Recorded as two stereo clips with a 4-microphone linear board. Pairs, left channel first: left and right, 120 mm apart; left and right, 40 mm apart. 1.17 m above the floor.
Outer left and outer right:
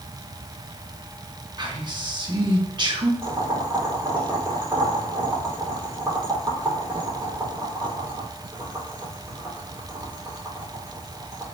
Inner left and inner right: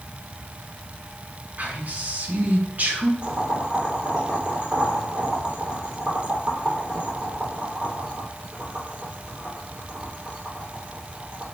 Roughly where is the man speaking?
Right.